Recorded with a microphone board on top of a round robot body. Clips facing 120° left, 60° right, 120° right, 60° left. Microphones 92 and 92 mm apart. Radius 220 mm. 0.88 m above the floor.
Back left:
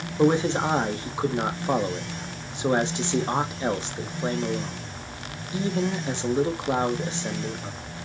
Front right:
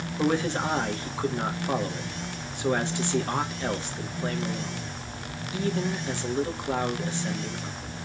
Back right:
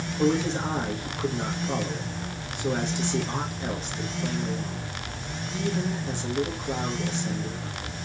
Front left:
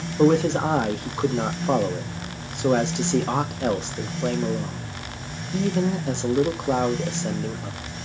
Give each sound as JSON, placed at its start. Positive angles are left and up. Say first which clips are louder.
{"t": 0.2, "sound": "a man speaking", "louder": "back left 5 dB, front left 6 dB", "azimuth_deg": 50, "distance_m": 2.0}